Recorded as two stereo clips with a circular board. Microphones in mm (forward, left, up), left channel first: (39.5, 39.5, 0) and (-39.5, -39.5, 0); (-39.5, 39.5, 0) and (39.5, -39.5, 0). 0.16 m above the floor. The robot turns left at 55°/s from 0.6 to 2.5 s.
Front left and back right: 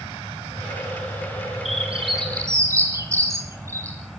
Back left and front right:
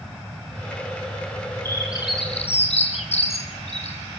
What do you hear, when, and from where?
1.6 s a bird: 155° right, 2 m; by 4.0 s 160° left, 2 m